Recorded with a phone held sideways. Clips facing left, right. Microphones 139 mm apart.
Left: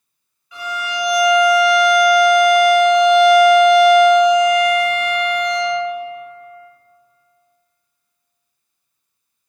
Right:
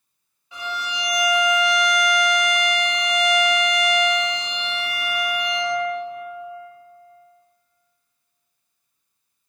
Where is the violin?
30° right (ahead or behind), 0.9 m.